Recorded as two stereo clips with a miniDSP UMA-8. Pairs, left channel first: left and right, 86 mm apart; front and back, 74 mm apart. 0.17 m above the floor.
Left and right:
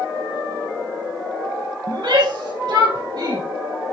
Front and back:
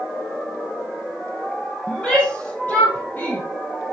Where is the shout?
75° right, 4 m; by 3.4 s 60° right, 4 m.